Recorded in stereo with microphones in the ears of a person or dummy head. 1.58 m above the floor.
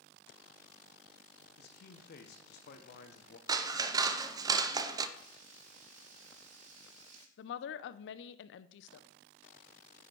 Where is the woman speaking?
65° left (ahead or behind), 0.7 m.